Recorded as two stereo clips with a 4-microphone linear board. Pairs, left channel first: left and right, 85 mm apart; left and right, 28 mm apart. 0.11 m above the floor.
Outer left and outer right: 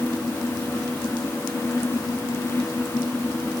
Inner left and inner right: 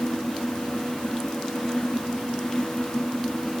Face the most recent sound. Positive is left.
No sound to turn to.